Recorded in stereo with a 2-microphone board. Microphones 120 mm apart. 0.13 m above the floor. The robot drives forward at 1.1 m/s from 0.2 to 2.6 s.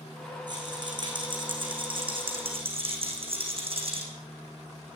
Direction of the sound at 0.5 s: 35° right (ahead or behind).